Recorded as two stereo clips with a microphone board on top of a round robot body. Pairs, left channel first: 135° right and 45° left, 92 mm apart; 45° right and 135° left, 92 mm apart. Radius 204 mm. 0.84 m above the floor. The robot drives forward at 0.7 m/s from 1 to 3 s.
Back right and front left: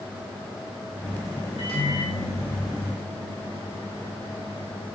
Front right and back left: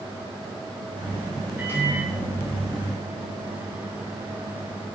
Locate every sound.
1.6 s a microwave: 155° right, 4 m; by 4.9 s 160° right, 5 m